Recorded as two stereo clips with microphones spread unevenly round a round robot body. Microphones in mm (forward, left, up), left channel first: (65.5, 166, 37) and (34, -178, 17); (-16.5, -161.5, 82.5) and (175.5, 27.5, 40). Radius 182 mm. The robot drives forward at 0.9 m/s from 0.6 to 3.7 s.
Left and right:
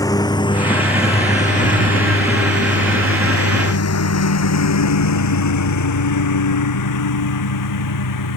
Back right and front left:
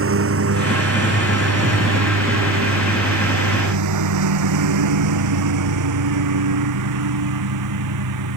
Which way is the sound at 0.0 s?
5° left.